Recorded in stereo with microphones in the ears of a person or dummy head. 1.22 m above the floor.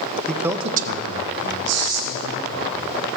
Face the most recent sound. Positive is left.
turn(degrees=-75)  # may be behind; listen again after turning